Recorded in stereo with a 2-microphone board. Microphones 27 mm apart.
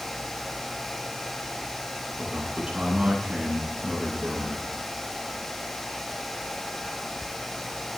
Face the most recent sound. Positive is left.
turn(degrees=-35)  # may be behind; listen again after turning